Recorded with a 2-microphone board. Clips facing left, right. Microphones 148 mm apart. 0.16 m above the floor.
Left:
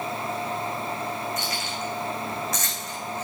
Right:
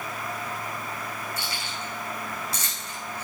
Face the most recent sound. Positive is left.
turn(degrees=-35)  # may be behind; listen again after turning